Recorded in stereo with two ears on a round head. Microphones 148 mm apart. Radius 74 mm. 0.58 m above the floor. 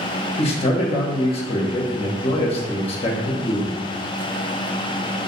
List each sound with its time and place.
0.4 s a man speaking: 35° left (ahead or behind), 0.9 m